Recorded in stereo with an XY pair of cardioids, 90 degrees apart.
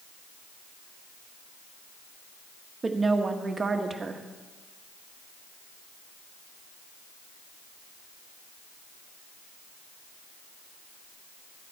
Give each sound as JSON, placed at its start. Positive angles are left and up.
{"t": 2.8, "sound": "a woman speaking", "azimuth_deg": -35, "distance_m": 1.6}